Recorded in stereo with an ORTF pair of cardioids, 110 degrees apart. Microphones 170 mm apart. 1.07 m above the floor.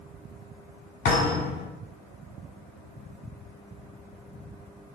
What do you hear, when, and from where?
1.1 s a thud: 65° left, 1.4 m